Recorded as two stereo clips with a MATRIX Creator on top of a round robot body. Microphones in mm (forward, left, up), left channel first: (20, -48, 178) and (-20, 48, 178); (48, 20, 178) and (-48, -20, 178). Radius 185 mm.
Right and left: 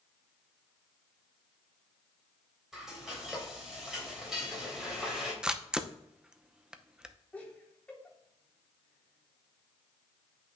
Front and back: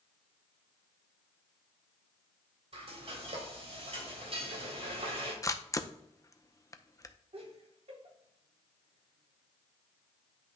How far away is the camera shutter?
About 0.8 m.